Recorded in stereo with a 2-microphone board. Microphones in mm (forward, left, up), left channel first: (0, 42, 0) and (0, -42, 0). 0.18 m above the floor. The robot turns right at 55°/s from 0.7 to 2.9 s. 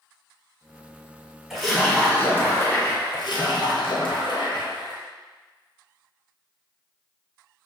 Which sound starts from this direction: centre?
A splash, at 1.5 s.